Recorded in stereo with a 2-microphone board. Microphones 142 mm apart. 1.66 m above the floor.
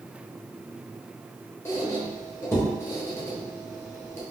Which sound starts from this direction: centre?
A squeak, at 1.6 s.